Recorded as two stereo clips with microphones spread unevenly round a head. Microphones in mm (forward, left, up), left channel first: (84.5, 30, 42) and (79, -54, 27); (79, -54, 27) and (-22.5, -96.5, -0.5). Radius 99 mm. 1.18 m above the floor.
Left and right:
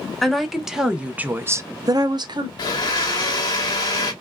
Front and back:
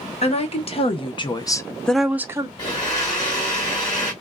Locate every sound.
0.2 s a woman speaking: 5° right, 1.3 m; by 2.5 s 110° right, 0.7 m
2.6 s a blender: 65° left, 1.1 m